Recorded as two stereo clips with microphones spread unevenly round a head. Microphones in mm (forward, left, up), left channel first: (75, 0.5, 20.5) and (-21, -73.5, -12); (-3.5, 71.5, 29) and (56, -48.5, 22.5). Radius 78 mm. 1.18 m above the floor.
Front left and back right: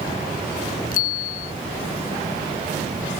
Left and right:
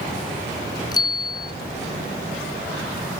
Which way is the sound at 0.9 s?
55° left.